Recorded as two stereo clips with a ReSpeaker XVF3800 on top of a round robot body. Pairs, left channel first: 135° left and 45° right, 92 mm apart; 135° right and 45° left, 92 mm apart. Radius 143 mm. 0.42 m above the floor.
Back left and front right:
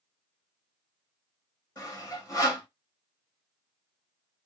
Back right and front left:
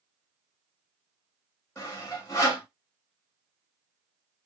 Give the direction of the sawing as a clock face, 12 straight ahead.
6 o'clock.